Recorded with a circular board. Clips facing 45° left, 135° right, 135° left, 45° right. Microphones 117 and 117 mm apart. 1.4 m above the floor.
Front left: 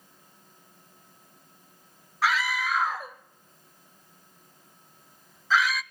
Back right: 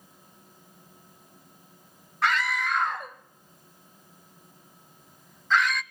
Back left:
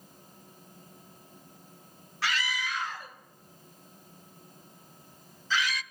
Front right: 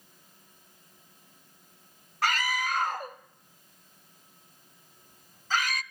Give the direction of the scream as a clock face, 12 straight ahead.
1 o'clock.